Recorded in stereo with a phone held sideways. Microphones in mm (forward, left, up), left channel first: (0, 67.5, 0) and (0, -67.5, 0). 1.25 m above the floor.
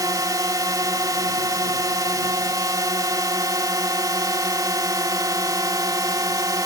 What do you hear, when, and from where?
0.0 s a drone: 25° right (ahead or behind)